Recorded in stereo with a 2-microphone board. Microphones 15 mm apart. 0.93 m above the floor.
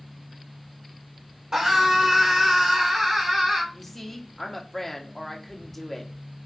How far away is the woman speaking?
About 1.7 m.